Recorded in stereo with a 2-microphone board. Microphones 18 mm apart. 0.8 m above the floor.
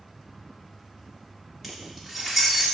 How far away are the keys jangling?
About 1.5 m.